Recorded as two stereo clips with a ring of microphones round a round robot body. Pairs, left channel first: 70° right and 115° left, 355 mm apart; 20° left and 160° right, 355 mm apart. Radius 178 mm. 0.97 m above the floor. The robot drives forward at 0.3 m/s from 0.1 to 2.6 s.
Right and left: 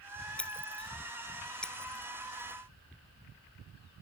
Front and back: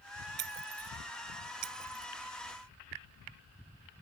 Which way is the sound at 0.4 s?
155° right.